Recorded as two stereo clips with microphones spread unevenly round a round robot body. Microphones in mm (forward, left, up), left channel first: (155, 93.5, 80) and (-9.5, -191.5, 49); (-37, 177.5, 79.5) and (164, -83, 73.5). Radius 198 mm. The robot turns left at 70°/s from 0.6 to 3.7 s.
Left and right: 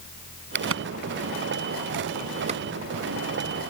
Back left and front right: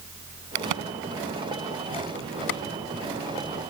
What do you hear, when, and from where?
0.6 s a crack: 60° right; by 3.7 s 80° left